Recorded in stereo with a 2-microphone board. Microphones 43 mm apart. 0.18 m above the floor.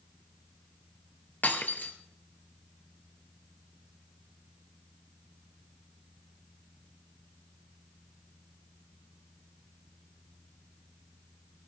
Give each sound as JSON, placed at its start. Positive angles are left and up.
{"t": 1.4, "sound": "breaking glass", "side_deg": 45, "distance_m": 2.0}